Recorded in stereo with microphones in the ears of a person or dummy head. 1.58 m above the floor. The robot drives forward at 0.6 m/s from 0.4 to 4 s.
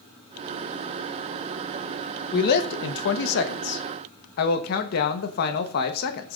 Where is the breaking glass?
No breaking glass in this recording.